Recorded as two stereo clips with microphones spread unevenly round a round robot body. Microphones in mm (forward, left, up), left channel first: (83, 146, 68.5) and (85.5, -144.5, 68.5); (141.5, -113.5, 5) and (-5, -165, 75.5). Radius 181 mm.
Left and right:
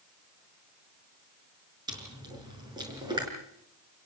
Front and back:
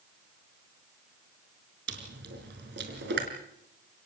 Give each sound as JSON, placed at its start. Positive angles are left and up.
{"t": 1.9, "sound": "chewing", "azimuth_deg": -165, "distance_m": 5.0}